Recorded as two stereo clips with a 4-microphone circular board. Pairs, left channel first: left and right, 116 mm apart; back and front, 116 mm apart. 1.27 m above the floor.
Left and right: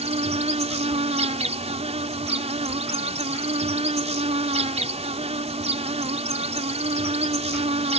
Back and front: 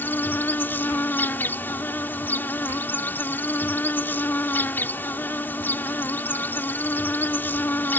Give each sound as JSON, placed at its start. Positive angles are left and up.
{"t": 0.0, "sound": "an insect", "azimuth_deg": -110}